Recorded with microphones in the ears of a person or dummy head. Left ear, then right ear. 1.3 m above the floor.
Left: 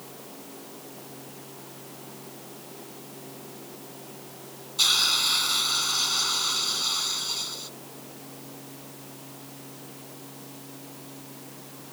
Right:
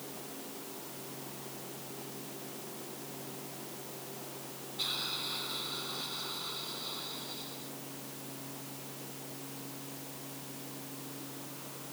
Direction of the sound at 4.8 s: 55° left (ahead or behind).